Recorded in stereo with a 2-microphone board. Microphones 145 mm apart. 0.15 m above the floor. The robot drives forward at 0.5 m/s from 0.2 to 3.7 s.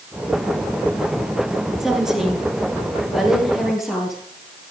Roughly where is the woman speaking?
Centre.